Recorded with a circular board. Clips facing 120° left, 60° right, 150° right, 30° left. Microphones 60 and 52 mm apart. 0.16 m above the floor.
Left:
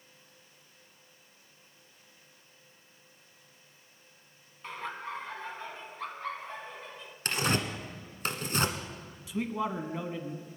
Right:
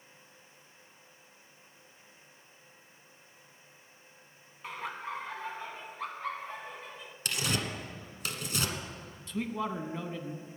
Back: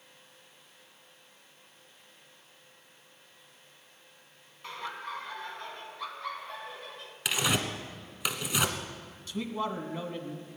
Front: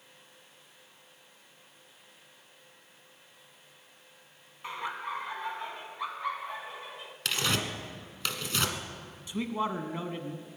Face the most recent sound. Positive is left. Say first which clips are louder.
# left 2 dB, front 2 dB
turn(degrees=50)